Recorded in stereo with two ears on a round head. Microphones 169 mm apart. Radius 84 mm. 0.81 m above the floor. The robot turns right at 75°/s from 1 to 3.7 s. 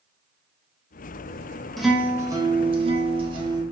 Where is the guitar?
Centre (ahead or behind), 0.6 m; by 3.6 s 20° right (ahead or behind), 0.6 m.